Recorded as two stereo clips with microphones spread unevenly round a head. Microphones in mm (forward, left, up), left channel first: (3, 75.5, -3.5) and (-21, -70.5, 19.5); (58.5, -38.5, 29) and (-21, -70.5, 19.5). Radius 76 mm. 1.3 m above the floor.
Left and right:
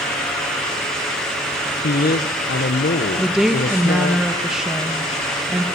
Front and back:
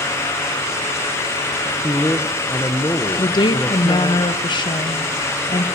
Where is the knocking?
I don't hear knocking.